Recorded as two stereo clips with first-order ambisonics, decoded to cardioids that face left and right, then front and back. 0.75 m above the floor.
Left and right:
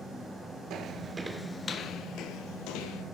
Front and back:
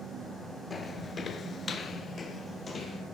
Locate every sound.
0.7 s footsteps: 70° right, 0.9 m; by 3.0 s 75° left, 1.6 m